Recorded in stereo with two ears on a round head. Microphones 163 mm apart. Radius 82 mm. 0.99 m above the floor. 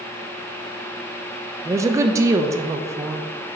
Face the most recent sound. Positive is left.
turn(degrees=-15)  # may be behind; listen again after turning